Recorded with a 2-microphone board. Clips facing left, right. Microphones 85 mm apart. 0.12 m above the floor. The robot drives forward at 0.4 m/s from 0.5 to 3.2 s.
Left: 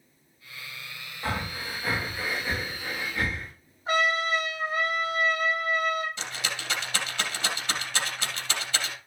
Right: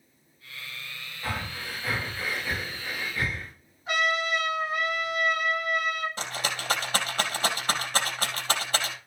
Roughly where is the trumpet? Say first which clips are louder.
Left 2 dB; left.